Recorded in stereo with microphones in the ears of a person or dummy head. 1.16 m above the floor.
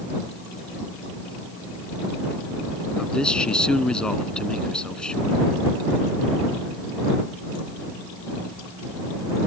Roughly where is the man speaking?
Centre.